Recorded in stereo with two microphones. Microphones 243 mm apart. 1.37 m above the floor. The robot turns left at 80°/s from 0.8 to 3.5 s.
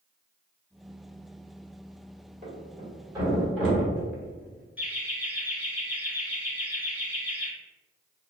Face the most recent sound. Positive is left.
turn(degrees=-5)  # may be behind; listen again after turning